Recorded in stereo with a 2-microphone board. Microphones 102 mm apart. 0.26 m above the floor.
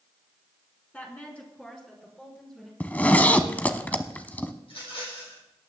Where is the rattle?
65° left (ahead or behind), 5.5 m.